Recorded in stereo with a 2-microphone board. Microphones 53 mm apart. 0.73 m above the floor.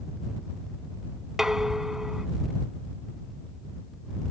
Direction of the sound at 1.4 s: 10° right (ahead or behind).